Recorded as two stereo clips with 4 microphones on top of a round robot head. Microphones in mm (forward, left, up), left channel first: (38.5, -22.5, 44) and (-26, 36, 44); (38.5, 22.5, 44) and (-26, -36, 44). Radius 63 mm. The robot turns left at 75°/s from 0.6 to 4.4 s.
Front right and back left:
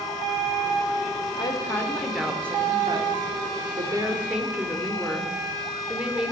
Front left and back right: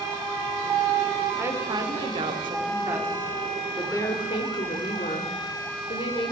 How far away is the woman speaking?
About 2 m.